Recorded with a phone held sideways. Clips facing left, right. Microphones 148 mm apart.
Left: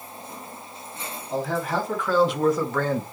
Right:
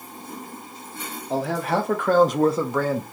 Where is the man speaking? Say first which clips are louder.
Right 2 dB; 80° right, 1.8 m; by 3.0 s centre (ahead or behind), 1.1 m.